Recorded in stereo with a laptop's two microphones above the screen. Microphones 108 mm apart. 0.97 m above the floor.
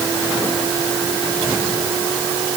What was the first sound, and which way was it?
Only background noise.